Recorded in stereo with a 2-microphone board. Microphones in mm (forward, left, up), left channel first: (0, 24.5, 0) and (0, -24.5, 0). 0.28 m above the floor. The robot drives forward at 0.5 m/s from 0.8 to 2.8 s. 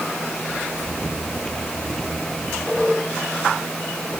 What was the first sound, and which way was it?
Only background noise.